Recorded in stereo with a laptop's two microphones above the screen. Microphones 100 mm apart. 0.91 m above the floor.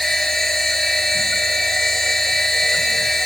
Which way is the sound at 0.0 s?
5° left (ahead or behind).